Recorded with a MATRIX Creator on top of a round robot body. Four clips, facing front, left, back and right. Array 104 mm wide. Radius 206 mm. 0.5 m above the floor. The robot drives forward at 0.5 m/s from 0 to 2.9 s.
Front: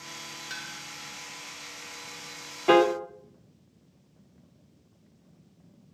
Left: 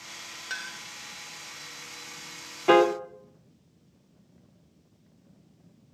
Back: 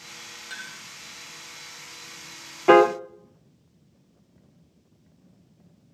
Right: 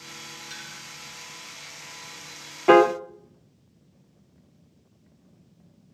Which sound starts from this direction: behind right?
A piano, at 2.7 s.